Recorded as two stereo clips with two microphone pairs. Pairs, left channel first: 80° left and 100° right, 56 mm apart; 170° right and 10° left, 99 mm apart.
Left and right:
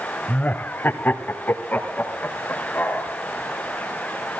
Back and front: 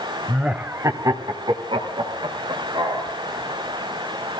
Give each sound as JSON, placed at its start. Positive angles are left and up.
{"t": 0.3, "sound": "laughter", "azimuth_deg": 100, "distance_m": 1.0}